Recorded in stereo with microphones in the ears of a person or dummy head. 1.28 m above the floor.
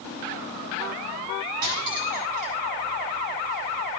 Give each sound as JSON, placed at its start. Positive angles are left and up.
{"t": 1.6, "sound": "cutlery clinking", "side_deg": -50, "distance_m": 4.5}